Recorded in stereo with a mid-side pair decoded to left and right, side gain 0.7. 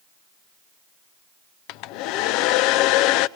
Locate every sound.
1.7 s a hair dryer: 65° left, 0.5 m